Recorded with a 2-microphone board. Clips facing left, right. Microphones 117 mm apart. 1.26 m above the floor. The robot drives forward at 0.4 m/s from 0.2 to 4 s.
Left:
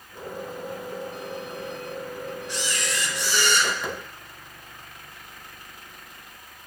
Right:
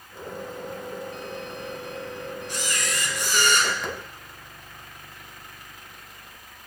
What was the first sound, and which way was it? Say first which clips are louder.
A camera shutter: right 1 dB; 55° right (ahead or behind).